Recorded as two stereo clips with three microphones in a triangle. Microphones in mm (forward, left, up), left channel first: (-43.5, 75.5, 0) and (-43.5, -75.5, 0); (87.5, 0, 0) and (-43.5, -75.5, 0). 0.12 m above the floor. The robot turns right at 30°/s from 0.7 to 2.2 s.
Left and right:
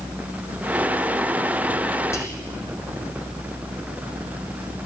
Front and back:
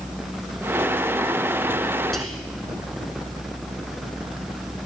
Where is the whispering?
115° left, 1.2 m.